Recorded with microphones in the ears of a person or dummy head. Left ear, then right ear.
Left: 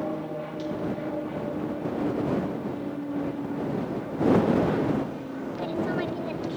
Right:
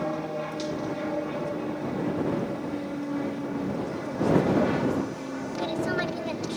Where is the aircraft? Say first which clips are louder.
Right 2 dB; 70° right (ahead or behind).